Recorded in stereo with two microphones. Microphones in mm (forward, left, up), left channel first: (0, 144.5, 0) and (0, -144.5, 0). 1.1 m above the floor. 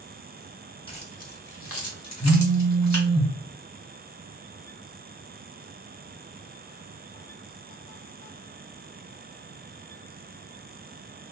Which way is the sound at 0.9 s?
20° left (ahead or behind).